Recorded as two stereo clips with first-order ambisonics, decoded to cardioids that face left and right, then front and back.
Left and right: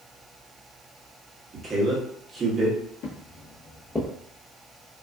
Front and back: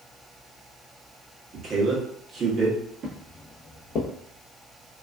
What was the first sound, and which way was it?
A man speaking, 140° right.